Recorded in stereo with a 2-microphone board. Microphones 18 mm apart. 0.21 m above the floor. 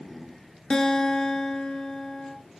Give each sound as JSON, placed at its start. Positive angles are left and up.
{"t": 0.7, "sound": "a guitar", "side_deg": 70, "distance_m": 0.8}